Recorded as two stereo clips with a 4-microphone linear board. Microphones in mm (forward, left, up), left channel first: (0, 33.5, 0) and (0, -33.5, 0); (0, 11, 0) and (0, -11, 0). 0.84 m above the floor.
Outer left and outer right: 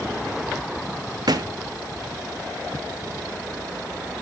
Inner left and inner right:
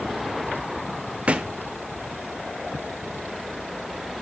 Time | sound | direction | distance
1.3 | a thud | 80° right | 1.1 m